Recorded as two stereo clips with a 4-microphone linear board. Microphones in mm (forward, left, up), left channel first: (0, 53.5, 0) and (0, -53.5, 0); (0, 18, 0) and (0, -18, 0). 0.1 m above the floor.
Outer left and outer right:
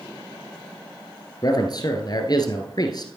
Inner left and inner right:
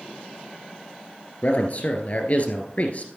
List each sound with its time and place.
1.4 s a man speaking: 45° left (ahead or behind), 1.5 m